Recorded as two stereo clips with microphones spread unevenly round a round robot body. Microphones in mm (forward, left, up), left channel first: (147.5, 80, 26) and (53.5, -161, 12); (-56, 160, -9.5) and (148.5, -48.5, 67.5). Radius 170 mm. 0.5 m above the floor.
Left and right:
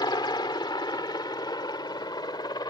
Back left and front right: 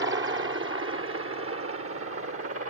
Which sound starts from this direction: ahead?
A helicopter, at 0.0 s.